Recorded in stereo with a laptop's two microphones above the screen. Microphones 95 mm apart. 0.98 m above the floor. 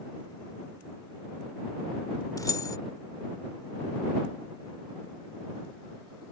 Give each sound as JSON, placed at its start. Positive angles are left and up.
{"t": 2.4, "sound": "keys jangling", "side_deg": 40}